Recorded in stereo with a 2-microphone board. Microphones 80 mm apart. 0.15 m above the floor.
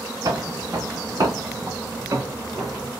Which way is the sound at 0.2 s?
45° right (ahead or behind).